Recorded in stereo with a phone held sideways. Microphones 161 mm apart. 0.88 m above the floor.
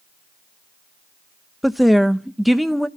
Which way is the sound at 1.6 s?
Centre (ahead or behind).